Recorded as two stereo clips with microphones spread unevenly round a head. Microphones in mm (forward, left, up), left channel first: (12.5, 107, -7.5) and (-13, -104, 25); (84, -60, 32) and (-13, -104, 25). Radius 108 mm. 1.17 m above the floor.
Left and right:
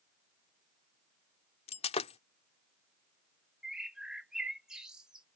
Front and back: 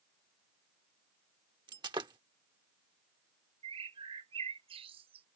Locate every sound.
1.7 s breaking glass: 145° left
3.6 s a bird: 170° right